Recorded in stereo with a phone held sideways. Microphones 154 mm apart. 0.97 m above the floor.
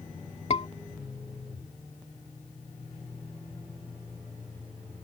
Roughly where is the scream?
Left.